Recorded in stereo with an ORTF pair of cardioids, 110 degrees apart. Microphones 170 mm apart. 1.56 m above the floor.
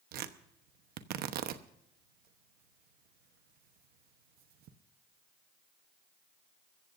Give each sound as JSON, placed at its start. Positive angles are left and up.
{"t": 0.1, "sound": "tearing paper", "azimuth_deg": -65, "distance_m": 1.0}